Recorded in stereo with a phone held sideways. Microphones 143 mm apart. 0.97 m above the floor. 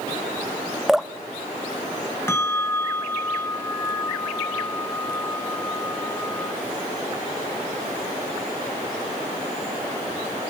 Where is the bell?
15° left (ahead or behind), 0.9 m.